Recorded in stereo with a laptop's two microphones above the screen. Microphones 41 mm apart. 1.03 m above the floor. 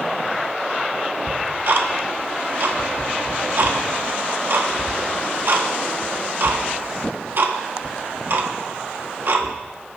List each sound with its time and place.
1.3 s ticking: 55° right (ahead or behind), 1.2 m